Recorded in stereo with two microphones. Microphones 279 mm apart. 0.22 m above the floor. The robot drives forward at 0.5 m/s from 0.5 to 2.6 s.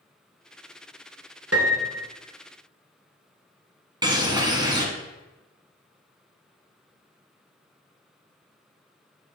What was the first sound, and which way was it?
A piano, 65° right (ahead or behind).